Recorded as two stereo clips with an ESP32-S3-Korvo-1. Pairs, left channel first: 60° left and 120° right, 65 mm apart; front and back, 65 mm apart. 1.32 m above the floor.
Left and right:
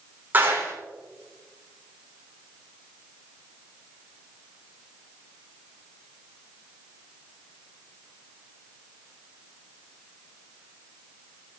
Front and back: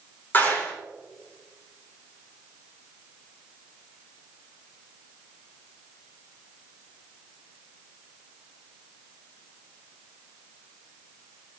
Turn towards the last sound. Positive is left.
turn(degrees=-60)